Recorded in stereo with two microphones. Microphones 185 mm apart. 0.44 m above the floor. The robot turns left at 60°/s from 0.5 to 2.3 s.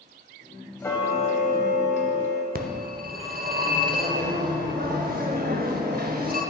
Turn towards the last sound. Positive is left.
turn(degrees=-55)  # may be behind; listen again after turning